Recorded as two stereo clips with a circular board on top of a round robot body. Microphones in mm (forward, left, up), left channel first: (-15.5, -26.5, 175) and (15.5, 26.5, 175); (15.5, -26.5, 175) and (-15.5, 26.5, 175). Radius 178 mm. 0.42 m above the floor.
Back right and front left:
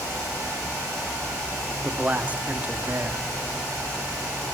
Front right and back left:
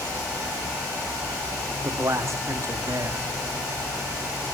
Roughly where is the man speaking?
Behind left.